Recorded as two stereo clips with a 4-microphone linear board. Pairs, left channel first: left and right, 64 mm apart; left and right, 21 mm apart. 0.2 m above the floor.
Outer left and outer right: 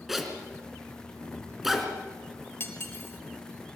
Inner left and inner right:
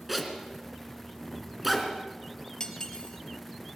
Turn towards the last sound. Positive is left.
turn(degrees=35)  # may be behind; listen again after turning